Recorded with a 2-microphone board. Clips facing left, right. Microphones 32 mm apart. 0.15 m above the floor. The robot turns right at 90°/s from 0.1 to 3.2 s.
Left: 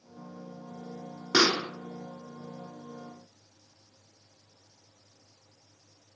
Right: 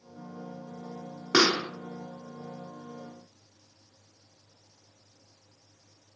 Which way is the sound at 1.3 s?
155° right.